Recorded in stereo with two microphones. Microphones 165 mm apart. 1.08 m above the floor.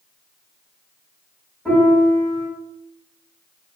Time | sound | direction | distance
1.6 | a piano | 5° left (ahead or behind) | 1.7 m